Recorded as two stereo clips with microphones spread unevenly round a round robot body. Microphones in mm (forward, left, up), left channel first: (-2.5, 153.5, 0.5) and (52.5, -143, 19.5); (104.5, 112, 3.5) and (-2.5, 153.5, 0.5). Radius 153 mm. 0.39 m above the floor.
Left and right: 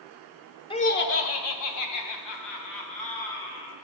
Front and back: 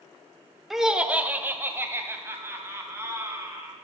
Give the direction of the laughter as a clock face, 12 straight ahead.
9 o'clock.